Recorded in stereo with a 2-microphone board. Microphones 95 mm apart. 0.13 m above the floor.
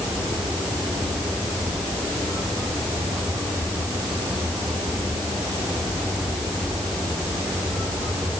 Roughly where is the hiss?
No hiss in this recording.